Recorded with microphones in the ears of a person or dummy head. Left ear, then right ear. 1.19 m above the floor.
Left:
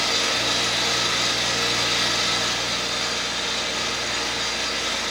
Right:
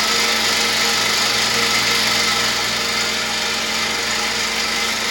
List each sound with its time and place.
0.0 s an engine running: 70° right (ahead or behind), 5.5 m